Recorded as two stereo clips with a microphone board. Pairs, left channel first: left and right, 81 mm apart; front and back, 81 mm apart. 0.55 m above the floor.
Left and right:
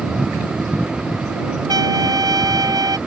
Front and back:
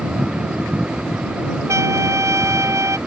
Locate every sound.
1.7 s a trumpet: 125° right